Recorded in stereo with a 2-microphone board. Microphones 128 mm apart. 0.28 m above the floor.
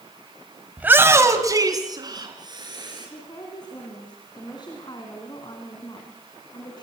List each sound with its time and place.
0.8 s a shout: 10° right (ahead or behind), 1.2 m; by 3.1 s 35° right (ahead or behind), 4.5 m
3.0 s a woman speaking: 35° left (ahead or behind), 3 m